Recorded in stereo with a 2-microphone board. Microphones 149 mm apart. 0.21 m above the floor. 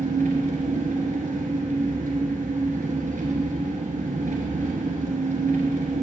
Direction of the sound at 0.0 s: 75° right (ahead or behind).